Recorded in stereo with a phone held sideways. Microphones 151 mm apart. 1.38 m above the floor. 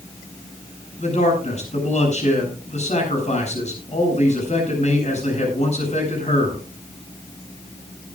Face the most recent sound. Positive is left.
turn(degrees=50)  # may be behind; listen again after turning